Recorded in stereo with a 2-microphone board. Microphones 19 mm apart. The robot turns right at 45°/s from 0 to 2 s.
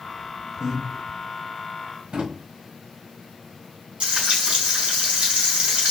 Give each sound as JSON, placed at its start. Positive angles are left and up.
{"t": 0.6, "sound": "breathing", "side_deg": -20, "distance_m": 1.4}
{"t": 2.1, "sound": "a drawer", "side_deg": -80, "distance_m": 1.6}
{"t": 4.0, "sound": "frying", "side_deg": -75, "distance_m": 3.0}